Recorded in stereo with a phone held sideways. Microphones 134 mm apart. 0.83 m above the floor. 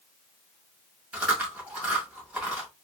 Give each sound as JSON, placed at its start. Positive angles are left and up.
{"t": 1.1, "sound": "chewing", "side_deg": -10, "distance_m": 2.0}